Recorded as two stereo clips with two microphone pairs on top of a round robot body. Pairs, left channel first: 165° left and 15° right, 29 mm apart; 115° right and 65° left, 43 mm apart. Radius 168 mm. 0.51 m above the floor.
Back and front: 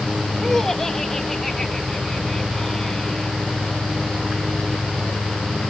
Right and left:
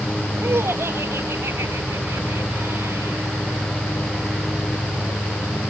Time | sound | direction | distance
0.4 | laughter | 85° left | ?